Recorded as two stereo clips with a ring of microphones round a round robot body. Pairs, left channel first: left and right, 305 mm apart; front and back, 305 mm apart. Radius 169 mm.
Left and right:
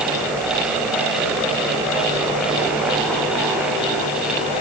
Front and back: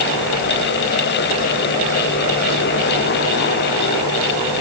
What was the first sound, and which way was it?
Only background noise.